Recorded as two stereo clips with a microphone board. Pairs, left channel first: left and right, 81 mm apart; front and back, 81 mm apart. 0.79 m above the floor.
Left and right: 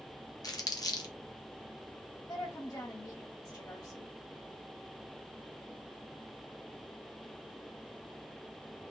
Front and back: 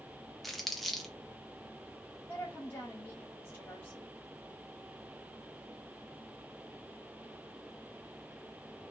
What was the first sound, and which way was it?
Crumpling, 85° left.